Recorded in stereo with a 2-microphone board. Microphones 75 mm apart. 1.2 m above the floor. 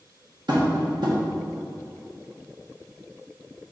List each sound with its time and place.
0.5 s tapping: 70° right (ahead or behind), 1.5 m